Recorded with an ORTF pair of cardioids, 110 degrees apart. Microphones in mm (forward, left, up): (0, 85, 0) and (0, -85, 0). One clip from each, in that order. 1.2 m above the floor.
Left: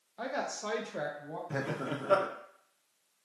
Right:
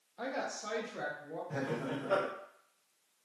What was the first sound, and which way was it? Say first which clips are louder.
A woman speaking: left 2 dB; 10° left.